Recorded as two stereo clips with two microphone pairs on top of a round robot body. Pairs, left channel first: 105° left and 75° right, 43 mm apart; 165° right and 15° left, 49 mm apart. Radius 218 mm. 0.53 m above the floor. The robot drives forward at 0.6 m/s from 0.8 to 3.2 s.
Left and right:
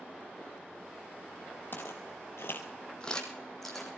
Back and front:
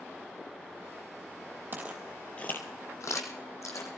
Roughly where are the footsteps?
Ahead left.